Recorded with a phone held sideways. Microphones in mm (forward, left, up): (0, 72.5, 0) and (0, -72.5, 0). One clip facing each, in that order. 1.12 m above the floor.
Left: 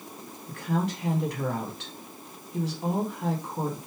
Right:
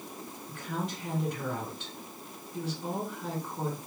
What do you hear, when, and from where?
0.5 s a woman speaking: 75° left (ahead or behind), 1.7 m